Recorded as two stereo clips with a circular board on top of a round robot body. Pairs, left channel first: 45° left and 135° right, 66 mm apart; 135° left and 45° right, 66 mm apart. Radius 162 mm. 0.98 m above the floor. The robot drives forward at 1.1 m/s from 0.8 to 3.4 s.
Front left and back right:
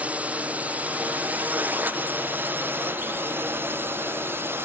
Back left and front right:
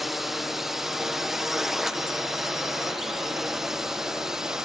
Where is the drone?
130° right; by 4.7 s 120° right.